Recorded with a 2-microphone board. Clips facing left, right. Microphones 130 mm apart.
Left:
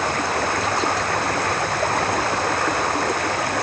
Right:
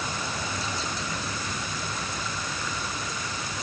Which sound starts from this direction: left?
Running water, at 0.0 s.